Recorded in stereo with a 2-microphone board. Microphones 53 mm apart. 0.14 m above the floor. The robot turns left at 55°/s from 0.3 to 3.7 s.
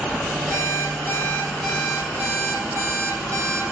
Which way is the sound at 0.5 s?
70° left.